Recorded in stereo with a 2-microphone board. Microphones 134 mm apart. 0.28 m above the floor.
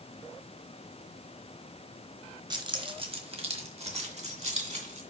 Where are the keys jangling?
30° right (ahead or behind), 1.1 m; by 5.0 s 50° right (ahead or behind), 2.5 m.